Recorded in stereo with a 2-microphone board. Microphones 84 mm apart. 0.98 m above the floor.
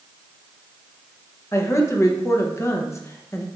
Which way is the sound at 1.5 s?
30° left (ahead or behind).